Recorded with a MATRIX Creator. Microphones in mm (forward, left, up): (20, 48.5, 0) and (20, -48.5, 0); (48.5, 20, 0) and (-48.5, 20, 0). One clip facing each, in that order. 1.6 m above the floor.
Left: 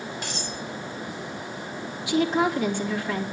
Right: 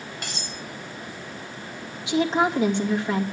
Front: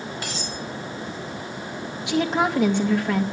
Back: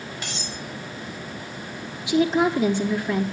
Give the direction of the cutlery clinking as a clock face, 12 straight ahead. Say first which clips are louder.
Left 3 dB, front 3 dB; 2 o'clock.